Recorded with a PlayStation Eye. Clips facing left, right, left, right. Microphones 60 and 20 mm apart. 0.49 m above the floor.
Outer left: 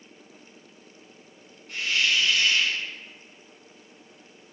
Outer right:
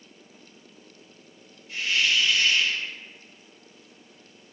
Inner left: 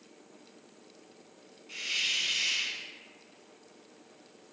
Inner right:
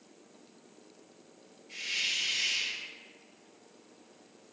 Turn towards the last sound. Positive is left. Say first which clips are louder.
# even, inner left 2 dB
turn(degrees=70)  # may be behind; listen again after turning